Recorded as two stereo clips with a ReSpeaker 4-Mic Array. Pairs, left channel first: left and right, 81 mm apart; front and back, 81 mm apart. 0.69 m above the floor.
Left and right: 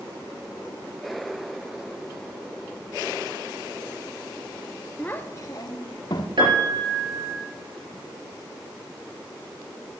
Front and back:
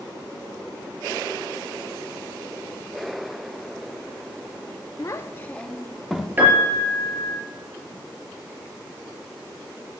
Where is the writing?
I don't hear writing.